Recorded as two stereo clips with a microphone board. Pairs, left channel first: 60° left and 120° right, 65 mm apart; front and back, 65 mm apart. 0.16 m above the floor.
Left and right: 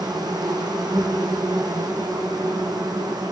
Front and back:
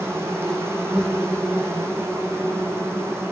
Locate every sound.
0.0 s an insect: 130° right, 3.5 m